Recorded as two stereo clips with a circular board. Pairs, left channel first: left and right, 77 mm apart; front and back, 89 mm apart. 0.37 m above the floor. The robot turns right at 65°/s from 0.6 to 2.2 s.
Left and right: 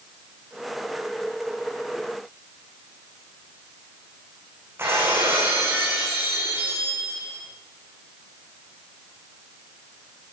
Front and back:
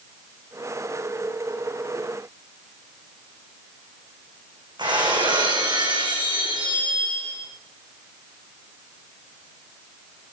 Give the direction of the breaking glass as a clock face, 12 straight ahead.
5 o'clock.